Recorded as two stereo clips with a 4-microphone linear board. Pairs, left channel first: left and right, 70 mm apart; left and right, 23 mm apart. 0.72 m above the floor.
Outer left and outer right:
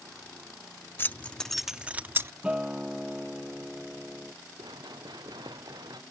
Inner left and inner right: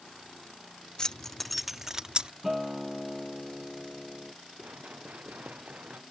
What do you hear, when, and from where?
1.0 s keys jangling: 30° left (ahead or behind); by 2.3 s 35° right (ahead or behind)
2.4 s a guitar: 15° right (ahead or behind)
4.6 s running footsteps: 80° right; by 6.0 s 75° right (ahead or behind)